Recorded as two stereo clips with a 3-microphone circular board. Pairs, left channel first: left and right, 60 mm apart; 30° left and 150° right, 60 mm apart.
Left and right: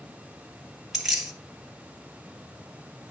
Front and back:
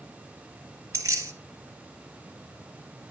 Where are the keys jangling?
175° right, 1.9 m.